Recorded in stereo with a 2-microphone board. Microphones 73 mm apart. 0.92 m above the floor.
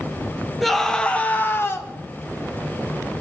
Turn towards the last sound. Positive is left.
turn(degrees=40)  # may be behind; listen again after turning